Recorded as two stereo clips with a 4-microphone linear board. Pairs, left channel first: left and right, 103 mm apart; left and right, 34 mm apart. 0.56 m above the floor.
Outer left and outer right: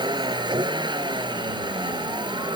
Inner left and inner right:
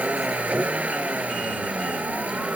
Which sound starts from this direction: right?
A vehicle, at 0.0 s.